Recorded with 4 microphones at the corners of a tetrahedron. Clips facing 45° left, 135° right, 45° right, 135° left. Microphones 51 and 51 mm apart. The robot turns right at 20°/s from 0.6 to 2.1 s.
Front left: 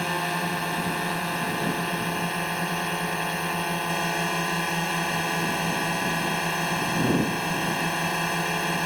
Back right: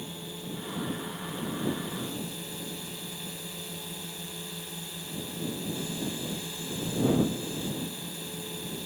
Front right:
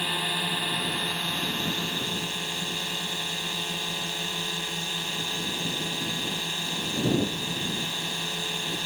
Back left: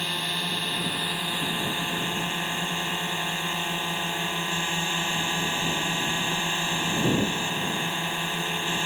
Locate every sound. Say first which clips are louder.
0.0 s a drone: front left 14 dB, front right 1 dB; 40° left; by 8.9 s 70° left